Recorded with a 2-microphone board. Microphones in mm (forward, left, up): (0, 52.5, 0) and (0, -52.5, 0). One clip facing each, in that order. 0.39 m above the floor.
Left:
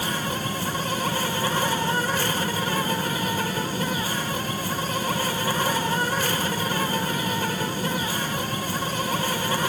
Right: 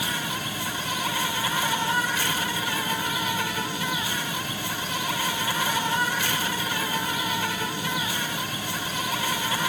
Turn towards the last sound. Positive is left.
turn(degrees=40)  # may be behind; listen again after turning